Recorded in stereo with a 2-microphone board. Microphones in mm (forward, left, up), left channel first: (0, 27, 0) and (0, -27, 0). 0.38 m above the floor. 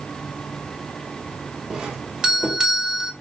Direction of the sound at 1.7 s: 10° right (ahead or behind).